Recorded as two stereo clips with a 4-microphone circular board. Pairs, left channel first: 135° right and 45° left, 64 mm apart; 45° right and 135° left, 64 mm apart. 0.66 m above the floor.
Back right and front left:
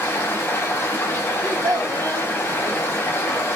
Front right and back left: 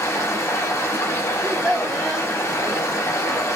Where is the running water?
80° right, 0.9 m.